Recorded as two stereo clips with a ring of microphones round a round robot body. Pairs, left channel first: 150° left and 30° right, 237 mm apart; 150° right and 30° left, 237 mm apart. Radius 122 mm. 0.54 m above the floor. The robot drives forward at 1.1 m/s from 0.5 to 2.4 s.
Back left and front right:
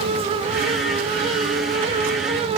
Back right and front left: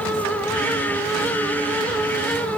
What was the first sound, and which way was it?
Only background noise.